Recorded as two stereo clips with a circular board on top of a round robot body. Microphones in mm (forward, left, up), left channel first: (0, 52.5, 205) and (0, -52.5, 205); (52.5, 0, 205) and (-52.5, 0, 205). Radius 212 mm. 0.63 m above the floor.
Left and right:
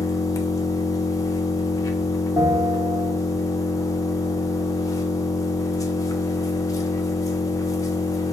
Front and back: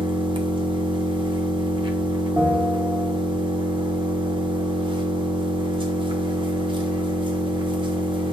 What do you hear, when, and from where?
0.0 s an engine running: 145° left, 0.7 m
2.4 s a bell: 150° right, 1.3 m